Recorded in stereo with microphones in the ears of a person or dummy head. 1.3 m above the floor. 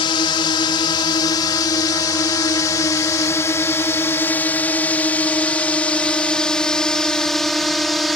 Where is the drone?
25° left (ahead or behind); by 8.2 s centre (ahead or behind).